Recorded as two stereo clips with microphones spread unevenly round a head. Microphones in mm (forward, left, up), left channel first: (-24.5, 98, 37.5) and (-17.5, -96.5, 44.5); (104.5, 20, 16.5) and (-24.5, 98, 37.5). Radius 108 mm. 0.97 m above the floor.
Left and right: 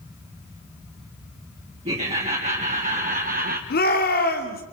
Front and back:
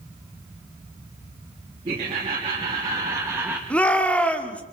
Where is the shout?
50° left, 3 m.